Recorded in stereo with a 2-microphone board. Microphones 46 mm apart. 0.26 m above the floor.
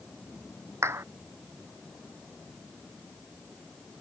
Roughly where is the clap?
Right.